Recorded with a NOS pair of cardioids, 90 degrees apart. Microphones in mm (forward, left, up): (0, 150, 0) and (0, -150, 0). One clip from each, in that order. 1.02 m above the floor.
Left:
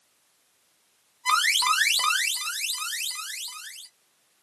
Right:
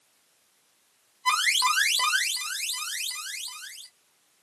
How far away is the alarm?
About 1.1 m.